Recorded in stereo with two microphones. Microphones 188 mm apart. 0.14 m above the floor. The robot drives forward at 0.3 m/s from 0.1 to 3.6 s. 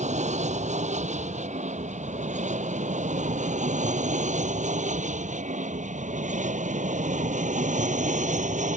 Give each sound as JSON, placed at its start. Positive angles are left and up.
{"t": 0.0, "sound": "an aircraft", "side_deg": -40}